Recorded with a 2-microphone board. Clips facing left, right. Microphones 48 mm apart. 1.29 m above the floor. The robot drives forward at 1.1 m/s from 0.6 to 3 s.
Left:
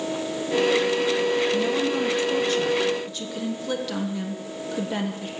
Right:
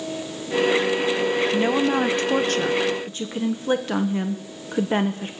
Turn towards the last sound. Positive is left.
turn(degrees=-35)  # may be behind; listen again after turning